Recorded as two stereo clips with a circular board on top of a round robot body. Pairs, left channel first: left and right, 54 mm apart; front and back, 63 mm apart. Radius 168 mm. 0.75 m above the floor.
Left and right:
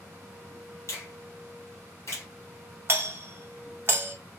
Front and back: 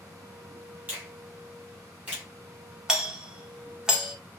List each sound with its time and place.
0.9 s a finger snap: 120° left, 1.9 m
2.9 s a doorbell: 105° right, 1.2 m